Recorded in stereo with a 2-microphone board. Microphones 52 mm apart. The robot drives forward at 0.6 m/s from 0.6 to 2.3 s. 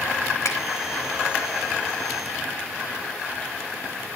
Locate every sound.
0.5 s a finger snap: 80° left, 5 m